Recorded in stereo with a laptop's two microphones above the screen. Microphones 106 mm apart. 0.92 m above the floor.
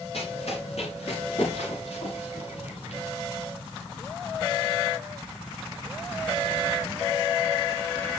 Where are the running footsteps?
70° left (ahead or behind), 10 m; by 3.0 s 80° left, 8.5 m.